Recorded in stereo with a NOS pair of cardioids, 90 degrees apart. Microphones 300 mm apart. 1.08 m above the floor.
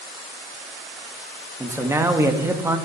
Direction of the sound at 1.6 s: 10° right.